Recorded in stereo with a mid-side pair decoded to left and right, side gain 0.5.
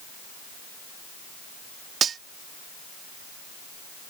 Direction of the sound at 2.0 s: 50° right.